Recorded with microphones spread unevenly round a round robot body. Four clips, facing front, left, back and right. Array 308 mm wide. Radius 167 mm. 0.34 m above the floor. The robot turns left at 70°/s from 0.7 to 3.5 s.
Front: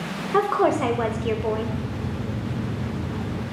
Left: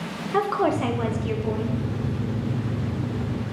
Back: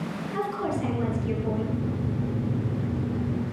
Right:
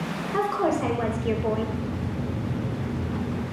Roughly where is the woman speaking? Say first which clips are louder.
Left 2 dB, front 10 dB; ahead.